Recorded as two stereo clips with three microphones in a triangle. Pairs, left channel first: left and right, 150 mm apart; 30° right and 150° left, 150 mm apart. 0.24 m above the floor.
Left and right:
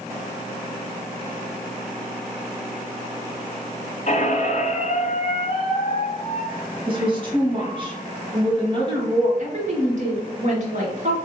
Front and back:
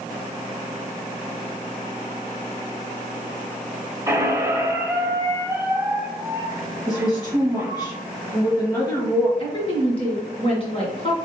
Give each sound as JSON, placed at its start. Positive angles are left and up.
{"t": 4.1, "sound": "a squeak", "azimuth_deg": 85, "distance_m": 0.9}
{"t": 6.9, "sound": "a woman speaking", "azimuth_deg": -75, "distance_m": 1.3}
{"t": 9.4, "sound": "a woman speaking", "azimuth_deg": -75, "distance_m": 1.9}